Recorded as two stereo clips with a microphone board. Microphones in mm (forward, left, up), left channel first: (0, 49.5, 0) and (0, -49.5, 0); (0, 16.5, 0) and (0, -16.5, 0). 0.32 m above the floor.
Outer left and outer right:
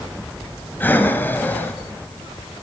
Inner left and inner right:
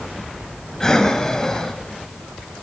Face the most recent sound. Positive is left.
turn(degrees=20)  # may be behind; listen again after turning